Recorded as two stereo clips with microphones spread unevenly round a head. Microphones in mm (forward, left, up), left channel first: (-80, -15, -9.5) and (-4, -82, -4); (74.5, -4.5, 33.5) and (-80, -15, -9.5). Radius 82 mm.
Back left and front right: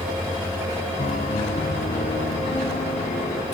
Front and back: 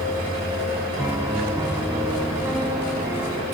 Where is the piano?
105° left.